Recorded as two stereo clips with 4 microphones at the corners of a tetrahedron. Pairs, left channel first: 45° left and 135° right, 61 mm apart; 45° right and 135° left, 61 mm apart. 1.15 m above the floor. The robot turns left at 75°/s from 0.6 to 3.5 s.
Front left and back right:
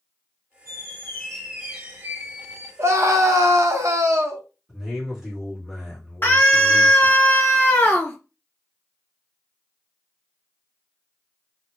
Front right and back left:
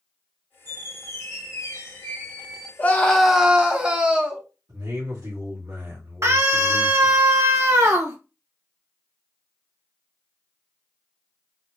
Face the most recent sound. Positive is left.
turn(degrees=100)